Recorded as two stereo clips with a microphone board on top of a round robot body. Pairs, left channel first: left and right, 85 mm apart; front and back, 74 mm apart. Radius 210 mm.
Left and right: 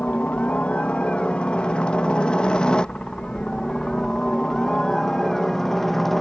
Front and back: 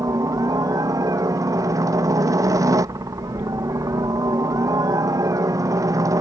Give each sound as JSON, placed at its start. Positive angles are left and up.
{"t": 0.0, "sound": "a helicopter", "azimuth_deg": 160}